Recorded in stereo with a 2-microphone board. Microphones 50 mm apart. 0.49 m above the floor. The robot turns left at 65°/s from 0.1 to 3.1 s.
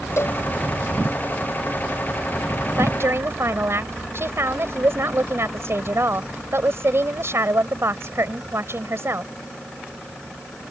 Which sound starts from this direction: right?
A woman speaking, at 2.8 s.